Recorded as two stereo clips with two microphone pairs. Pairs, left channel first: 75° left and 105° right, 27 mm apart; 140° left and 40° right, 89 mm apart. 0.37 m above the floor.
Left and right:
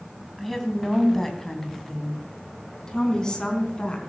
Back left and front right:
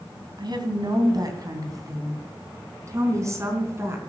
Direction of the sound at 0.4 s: 10° right.